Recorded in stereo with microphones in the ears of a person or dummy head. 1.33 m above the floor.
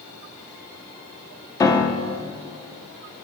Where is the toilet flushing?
No toilet flushing in this recording.